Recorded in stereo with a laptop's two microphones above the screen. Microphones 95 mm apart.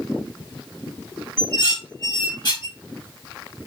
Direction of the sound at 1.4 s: 50° left (ahead or behind).